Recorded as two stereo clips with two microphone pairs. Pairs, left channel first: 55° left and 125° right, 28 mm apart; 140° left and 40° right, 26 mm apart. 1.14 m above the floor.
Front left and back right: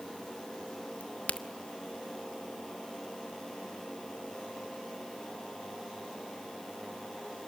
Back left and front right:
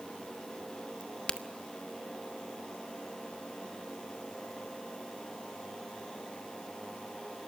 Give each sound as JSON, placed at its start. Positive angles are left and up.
{"t": 1.0, "sound": "a crack", "azimuth_deg": 85, "distance_m": 1.1}